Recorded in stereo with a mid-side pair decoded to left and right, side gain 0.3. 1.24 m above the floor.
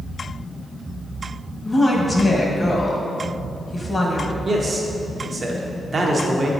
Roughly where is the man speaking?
Ahead right.